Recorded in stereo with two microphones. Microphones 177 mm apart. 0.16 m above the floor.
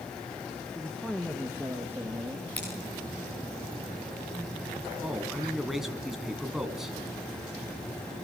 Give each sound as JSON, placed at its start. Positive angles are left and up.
{"t": 0.8, "sound": "a man speaking", "side_deg": 5, "distance_m": 2.5}
{"t": 2.6, "sound": "scissors", "side_deg": 10, "distance_m": 9.0}
{"t": 5.0, "sound": "a man speaking", "side_deg": 0, "distance_m": 1.8}